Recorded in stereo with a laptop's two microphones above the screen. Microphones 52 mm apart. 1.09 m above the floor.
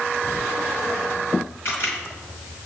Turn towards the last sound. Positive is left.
turn(degrees=50)  # may be behind; listen again after turning